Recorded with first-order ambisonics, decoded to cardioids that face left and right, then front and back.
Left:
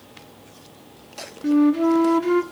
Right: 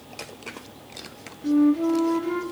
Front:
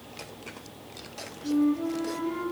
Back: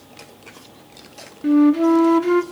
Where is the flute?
150° left, 0.5 m.